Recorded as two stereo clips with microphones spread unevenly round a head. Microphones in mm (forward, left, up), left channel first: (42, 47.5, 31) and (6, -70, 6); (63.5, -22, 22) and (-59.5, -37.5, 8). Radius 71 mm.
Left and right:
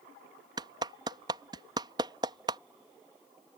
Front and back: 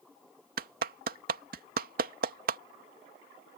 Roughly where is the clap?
Behind.